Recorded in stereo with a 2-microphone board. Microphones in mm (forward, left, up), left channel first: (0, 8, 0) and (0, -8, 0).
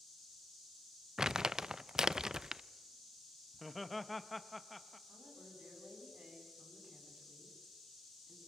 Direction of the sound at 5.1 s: 70° right (ahead or behind).